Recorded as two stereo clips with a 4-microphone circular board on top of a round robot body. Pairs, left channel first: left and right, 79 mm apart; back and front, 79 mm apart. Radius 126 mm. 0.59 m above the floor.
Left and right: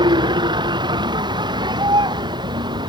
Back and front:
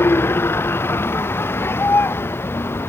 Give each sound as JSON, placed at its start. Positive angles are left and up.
{"t": 0.0, "sound": "a vehicle", "azimuth_deg": -115}